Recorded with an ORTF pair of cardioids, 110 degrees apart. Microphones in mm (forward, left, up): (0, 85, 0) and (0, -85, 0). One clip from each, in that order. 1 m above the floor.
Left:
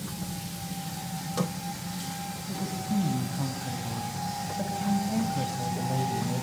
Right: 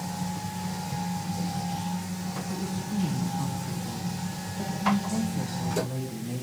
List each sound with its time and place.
2.5 s a woman speaking: 55° left, 6.5 m; by 6.4 s 35° left, 5 m